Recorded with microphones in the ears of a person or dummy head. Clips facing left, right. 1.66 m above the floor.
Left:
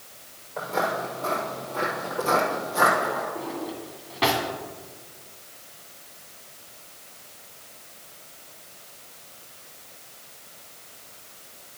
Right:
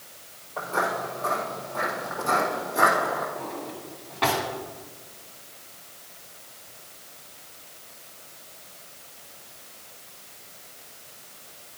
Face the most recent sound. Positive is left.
turn(degrees=25)  # may be behind; listen again after turning